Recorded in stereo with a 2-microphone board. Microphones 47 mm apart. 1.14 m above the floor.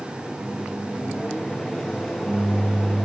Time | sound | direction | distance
0.4 | a microwave | 10° left (ahead or behind) | 1.0 m